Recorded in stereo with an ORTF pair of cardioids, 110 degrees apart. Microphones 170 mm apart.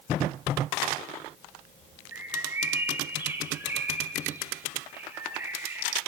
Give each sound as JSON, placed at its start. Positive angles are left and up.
{"t": 2.1, "sound": "a bird", "azimuth_deg": -15, "distance_m": 5.0}